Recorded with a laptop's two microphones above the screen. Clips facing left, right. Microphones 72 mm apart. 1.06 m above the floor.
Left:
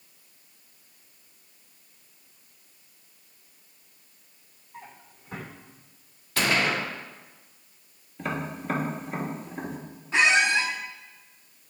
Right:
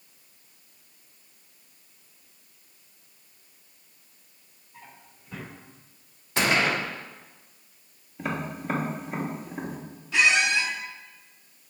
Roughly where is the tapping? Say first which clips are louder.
Even; centre.